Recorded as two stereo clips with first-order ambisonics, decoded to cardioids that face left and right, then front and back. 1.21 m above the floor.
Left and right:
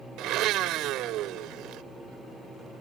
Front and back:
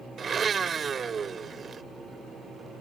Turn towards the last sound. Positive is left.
turn(degrees=-115)